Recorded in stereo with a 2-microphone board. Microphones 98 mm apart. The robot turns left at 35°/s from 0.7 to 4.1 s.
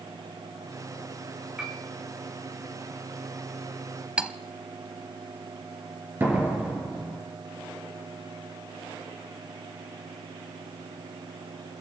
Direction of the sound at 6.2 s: 20° right (ahead or behind).